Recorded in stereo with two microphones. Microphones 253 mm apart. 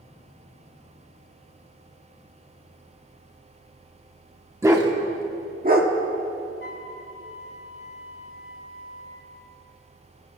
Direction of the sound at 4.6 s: 10° right (ahead or behind).